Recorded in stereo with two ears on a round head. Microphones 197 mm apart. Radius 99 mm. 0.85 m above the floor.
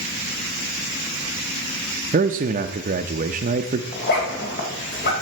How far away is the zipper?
About 2.5 m.